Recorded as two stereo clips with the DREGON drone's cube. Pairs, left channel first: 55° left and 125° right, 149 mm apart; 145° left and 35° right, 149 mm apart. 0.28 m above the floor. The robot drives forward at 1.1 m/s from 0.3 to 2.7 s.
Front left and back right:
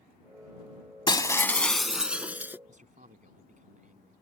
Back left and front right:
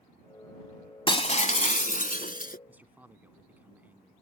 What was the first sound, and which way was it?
Breaking glass, 105° left.